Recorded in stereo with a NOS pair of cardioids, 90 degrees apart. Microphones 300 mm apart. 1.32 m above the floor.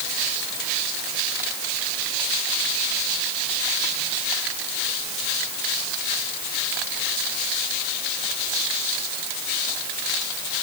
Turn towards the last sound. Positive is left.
No sound to turn to.